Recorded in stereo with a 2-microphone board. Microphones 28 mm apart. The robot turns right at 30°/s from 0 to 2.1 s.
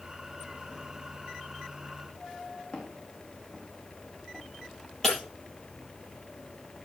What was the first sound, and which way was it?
Footsteps, 40° left (ahead or behind).